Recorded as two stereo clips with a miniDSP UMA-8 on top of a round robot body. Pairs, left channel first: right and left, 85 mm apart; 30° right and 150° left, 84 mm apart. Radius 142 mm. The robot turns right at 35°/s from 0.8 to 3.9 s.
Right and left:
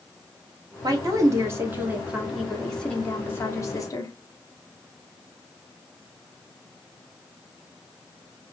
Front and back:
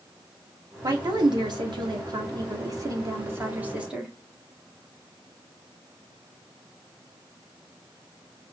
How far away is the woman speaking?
About 1.7 m.